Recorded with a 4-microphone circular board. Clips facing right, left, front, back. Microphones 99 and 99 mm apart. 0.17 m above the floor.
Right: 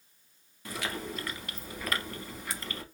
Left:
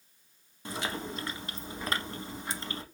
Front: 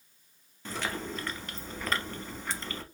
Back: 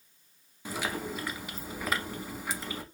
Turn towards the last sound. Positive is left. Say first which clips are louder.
# left 1 dB, back 1 dB
turn(degrees=110)